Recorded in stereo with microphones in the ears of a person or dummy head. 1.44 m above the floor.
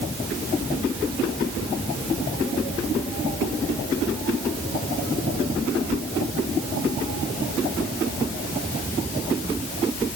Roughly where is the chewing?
No chewing in this recording.